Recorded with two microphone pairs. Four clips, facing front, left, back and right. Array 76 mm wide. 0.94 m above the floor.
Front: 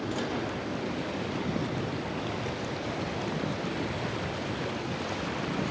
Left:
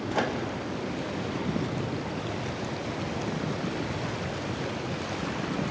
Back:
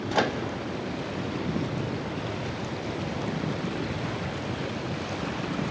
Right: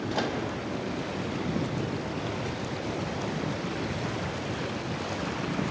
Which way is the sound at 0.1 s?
170° left.